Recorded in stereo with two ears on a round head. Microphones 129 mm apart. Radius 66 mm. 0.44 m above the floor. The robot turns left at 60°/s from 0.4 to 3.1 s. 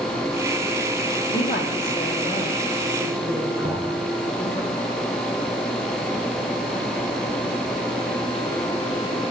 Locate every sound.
1.3 s a woman speaking: 100° left, 2 m; by 4.6 s 10° right, 2 m
3.6 s knocking: 75° right (ahead or behind), 4 m